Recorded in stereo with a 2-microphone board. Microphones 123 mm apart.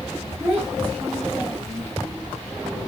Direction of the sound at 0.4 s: 15° right (ahead or behind).